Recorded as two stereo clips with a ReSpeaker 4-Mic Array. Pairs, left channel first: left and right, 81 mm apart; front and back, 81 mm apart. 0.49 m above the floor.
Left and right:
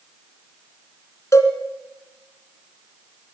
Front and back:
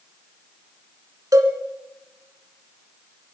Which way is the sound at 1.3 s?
140° left.